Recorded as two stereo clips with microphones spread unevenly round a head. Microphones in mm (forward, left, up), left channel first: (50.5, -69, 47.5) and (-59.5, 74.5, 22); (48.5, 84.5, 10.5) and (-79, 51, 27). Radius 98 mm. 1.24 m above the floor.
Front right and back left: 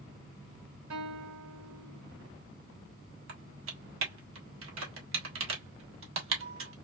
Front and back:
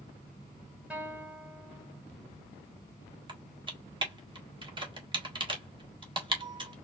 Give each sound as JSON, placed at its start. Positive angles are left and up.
{"t": 0.9, "sound": "a guitar", "azimuth_deg": 115, "distance_m": 2.0}
{"t": 3.3, "sound": "typing on a keyboard", "azimuth_deg": 145, "distance_m": 1.5}